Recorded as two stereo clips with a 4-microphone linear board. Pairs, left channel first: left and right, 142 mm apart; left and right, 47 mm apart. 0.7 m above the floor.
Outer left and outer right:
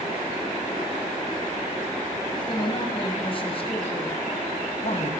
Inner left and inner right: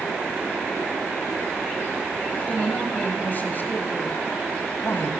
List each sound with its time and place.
2.3 s a man speaking: 30° left (ahead or behind), 3.5 m; by 5.1 s 55° left (ahead or behind), 3.5 m